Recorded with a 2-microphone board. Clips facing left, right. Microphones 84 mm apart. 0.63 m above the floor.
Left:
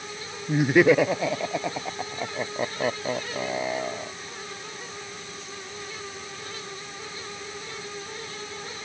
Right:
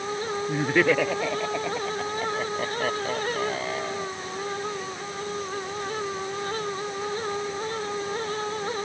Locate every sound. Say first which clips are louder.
0.5 s laughter: left 5 dB; 10° left (ahead or behind)